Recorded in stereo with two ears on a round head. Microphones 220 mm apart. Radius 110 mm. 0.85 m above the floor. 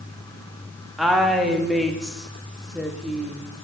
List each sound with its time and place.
1.0 s a woman speaking: centre (ahead or behind), 1.1 m